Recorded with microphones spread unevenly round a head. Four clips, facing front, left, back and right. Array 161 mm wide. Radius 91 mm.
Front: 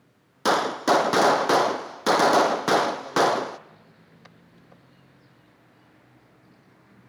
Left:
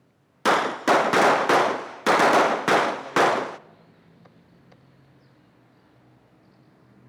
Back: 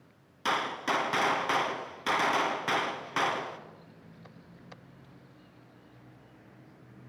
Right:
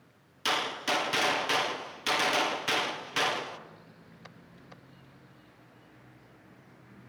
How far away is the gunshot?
About 0.7 m.